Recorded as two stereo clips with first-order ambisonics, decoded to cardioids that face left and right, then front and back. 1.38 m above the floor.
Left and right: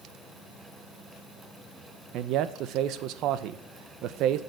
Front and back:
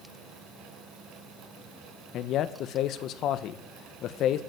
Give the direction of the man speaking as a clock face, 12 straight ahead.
2 o'clock.